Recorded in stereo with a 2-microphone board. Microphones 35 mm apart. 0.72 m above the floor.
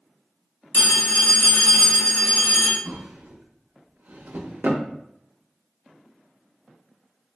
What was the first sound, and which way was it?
A phone ringing, 65° left (ahead or behind).